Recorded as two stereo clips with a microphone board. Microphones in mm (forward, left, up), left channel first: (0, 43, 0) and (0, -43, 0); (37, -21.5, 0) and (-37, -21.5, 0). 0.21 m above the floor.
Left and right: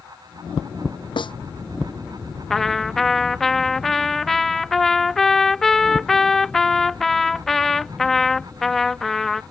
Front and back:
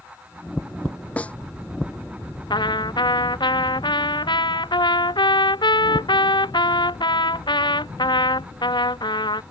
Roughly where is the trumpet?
Ahead.